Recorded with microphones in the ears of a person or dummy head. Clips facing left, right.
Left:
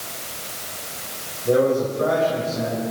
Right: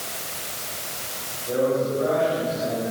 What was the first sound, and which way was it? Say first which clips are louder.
A man speaking: left 4 dB; 55° left (ahead or behind).